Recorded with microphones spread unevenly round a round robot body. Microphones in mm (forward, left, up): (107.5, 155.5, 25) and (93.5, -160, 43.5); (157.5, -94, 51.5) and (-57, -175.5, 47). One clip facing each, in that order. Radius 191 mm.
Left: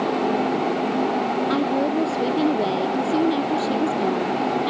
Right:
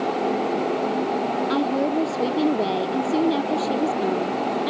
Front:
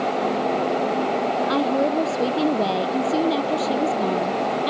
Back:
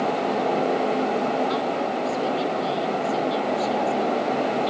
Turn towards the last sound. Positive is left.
turn(degrees=0)